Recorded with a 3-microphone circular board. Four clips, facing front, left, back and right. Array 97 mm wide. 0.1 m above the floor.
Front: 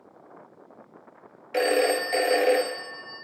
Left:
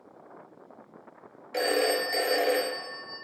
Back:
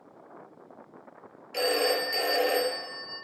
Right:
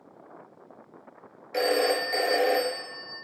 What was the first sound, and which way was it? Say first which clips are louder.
A phone ringing: right 2 dB, front 4 dB; 5° right.